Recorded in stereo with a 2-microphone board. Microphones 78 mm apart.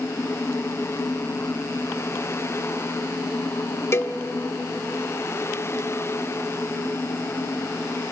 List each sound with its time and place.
3.9 s a cowbell: 35° left (ahead or behind), 1.0 m